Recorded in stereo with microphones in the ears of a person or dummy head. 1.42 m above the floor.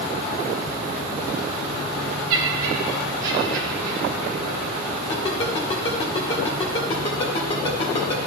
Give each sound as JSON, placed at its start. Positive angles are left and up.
{"t": 2.3, "sound": "laughter", "side_deg": -80, "distance_m": 1.3}
{"t": 5.1, "sound": "a ringtone", "side_deg": 30, "distance_m": 1.7}